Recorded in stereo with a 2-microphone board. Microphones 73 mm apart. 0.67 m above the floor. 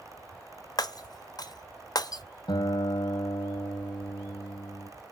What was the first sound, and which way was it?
Breaking glass, 55° left (ahead or behind).